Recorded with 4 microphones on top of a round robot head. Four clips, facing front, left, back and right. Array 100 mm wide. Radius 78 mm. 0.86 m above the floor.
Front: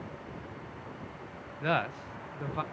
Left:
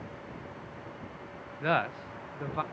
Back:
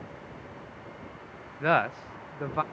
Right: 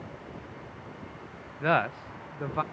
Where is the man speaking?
155° right, 0.5 m.